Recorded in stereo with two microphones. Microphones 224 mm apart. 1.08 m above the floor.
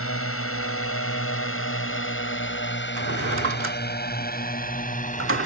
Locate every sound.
0.0 s a drone: 80° left; by 5.5 s 35° left (ahead or behind)
3.0 s a drawer: 70° right (ahead or behind)